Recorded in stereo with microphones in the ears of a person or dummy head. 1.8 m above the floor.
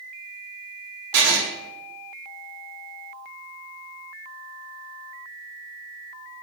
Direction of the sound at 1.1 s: 60° right (ahead or behind).